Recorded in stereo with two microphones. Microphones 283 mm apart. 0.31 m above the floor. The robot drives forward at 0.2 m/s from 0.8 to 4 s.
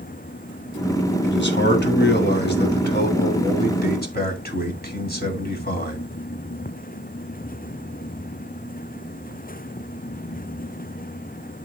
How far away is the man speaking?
About 1.9 m.